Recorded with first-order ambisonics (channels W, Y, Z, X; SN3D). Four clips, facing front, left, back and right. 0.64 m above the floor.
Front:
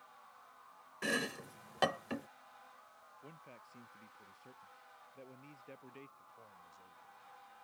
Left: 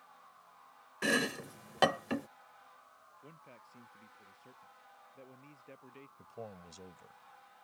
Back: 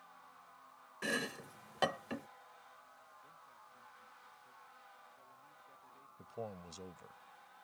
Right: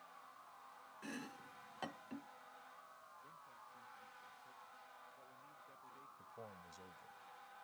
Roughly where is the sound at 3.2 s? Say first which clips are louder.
Left 3 dB, front 3 dB; ahead left.